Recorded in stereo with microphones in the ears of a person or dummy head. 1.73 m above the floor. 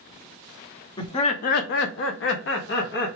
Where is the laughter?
25° left (ahead or behind), 0.6 m; by 3.1 s 55° left (ahead or behind), 1.0 m.